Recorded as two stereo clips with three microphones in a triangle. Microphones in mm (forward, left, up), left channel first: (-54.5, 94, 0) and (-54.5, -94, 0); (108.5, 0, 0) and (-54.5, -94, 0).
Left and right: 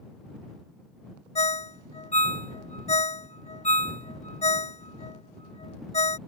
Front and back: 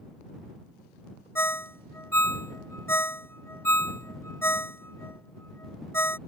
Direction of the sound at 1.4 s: 95° left.